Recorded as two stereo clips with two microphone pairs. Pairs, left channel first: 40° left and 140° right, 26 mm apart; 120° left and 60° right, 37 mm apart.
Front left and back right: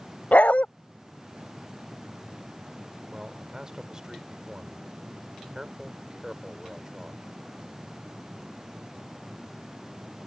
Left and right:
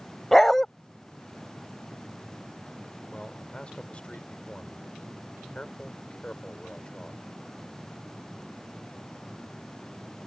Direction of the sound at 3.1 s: 165° left.